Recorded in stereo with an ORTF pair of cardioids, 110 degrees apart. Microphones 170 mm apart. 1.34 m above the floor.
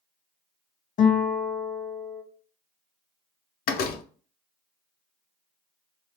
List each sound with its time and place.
1.0 s a guitar: 55° left, 1.1 m
3.7 s a door slam: 65° left, 0.6 m